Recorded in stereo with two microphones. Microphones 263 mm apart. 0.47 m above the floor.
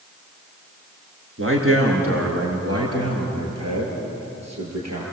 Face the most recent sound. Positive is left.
turn(degrees=-85)